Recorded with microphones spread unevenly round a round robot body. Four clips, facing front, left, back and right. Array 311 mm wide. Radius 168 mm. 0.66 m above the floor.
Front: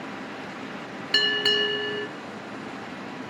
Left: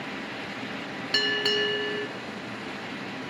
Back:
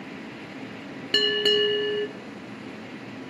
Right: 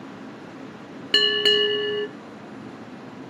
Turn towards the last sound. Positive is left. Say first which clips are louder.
# right 6 dB, back 3 dB
turn(degrees=-135)